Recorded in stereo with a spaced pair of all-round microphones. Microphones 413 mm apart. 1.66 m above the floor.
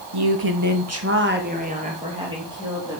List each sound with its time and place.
0.1 s a woman speaking: 65° right (ahead or behind), 0.8 m; by 3.0 s 5° right (ahead or behind), 3 m